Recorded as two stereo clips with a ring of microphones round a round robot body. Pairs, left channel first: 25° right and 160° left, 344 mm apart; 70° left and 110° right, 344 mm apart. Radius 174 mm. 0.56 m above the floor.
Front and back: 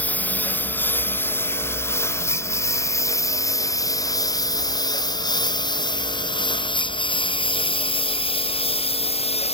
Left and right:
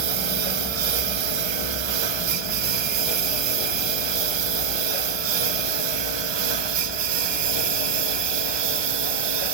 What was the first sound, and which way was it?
A lawn mower, 110° right.